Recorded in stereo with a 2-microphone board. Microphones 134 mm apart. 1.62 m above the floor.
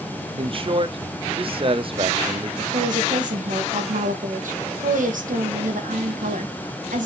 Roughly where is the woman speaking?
Right.